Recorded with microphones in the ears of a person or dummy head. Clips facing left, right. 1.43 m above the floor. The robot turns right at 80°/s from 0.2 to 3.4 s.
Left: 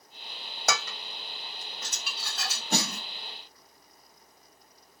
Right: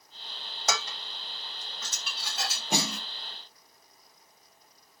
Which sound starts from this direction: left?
Dishes clattering, at 0.7 s.